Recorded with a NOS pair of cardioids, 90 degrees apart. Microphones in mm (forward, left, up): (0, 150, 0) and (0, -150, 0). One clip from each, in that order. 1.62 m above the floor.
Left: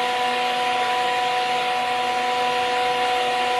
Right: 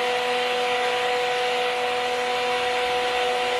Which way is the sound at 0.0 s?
25° left.